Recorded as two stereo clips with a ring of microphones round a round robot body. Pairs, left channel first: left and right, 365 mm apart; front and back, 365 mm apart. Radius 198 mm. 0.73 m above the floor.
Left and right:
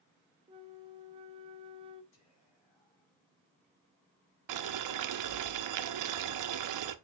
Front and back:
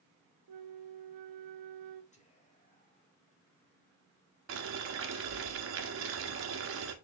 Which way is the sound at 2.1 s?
70° left.